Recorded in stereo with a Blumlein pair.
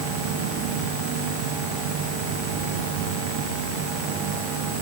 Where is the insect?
50° right, 0.8 m.